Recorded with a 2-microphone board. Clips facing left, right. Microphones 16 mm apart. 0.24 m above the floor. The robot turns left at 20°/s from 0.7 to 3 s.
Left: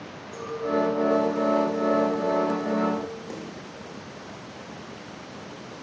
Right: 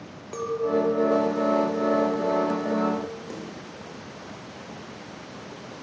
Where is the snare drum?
15° left (ahead or behind), 7.5 m.